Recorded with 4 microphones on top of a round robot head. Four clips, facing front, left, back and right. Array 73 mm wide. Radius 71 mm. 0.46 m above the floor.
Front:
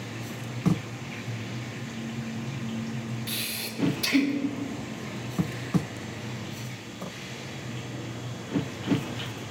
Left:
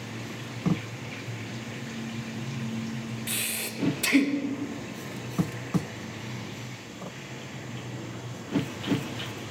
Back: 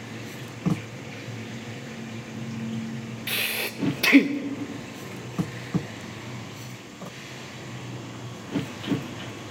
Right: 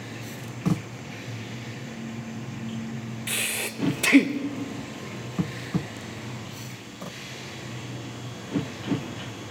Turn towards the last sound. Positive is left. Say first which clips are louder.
# right 4 dB, back 6 dB
turn(degrees=-150)